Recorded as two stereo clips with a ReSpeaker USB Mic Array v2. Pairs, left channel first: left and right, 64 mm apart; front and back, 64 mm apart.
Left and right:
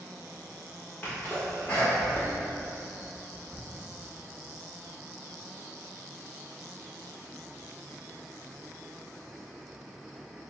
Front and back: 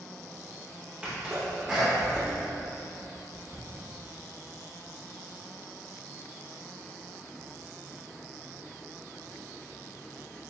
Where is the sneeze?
115° left, 0.8 m.